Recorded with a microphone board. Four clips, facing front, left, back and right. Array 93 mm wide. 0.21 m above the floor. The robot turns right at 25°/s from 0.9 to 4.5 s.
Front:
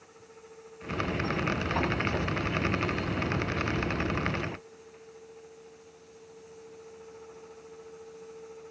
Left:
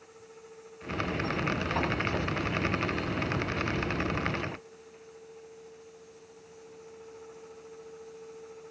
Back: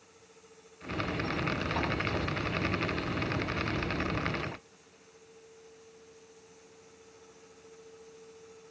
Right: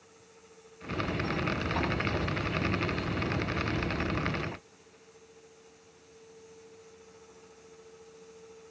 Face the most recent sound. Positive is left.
No sound to turn to.